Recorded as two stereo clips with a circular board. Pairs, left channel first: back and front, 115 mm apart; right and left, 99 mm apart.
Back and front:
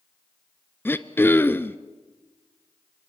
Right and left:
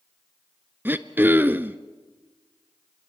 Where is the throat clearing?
135° left, 0.7 m.